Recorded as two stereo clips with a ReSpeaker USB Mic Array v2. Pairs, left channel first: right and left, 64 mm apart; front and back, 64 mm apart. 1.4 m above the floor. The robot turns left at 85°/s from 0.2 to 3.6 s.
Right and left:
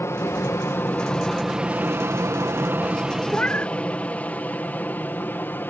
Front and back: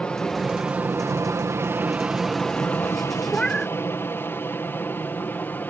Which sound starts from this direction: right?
An aircraft, at 0.0 s.